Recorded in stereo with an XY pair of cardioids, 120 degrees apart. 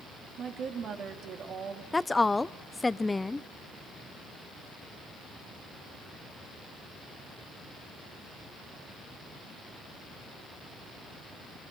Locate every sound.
0.4 s a woman speaking: 50° right, 2.5 m
1.9 s a woman speaking: 15° left, 0.6 m